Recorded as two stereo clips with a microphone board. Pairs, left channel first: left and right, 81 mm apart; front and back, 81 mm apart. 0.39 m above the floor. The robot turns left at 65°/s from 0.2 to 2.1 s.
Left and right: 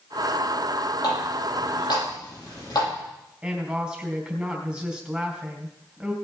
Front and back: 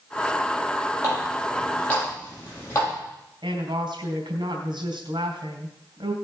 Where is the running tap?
130° left, 8 m; by 2.9 s 60° left, 8 m.